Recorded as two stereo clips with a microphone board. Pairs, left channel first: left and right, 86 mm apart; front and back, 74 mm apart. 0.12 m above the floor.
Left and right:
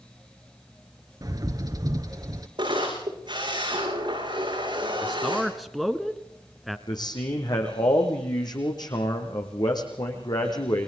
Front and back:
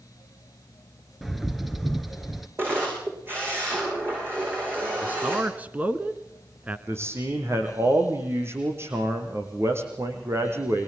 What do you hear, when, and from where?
1.2 s a bird: 95° right, 1.5 m
2.6 s a camera shutter: 120° right, 8.5 m
5.0 s a man speaking: straight behind, 1.3 m
6.9 s a man speaking: 125° left, 5.5 m